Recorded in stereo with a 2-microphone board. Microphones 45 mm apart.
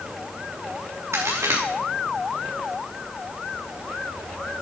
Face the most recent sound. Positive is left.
turn(degrees=-80)